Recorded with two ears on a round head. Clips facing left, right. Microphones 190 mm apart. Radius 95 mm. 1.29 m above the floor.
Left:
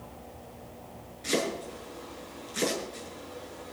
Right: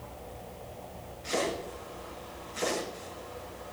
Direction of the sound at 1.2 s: 70° left (ahead or behind).